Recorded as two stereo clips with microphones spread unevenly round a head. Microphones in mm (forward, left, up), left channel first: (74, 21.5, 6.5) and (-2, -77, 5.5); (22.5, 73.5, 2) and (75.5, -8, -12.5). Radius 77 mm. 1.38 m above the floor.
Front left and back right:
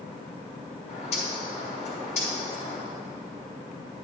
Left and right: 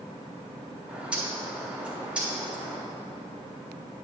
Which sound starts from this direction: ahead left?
A bird, at 0.9 s.